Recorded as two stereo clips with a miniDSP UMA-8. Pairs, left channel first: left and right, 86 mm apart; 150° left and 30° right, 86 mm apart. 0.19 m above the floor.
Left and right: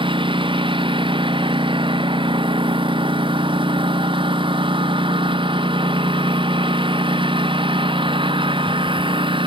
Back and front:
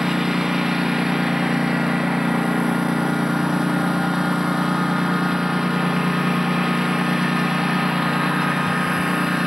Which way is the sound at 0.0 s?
115° right.